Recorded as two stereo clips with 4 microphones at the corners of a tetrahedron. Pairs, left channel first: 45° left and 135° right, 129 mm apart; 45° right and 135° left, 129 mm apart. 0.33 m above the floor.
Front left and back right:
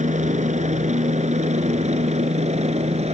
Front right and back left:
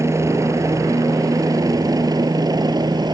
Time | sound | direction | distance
0.0 | a helicopter | 155° right | ?